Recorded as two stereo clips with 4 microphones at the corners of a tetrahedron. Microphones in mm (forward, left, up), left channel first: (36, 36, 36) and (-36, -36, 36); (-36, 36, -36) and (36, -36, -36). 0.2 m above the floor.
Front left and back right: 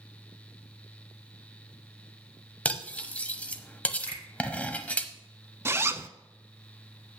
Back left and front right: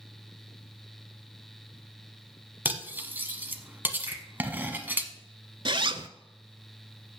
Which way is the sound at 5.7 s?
70° right.